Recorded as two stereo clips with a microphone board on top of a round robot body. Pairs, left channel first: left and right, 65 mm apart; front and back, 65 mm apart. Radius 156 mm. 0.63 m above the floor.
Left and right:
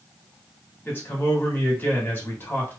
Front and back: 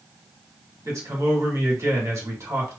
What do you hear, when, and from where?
0.8 s a man speaking: 145° left, 2 m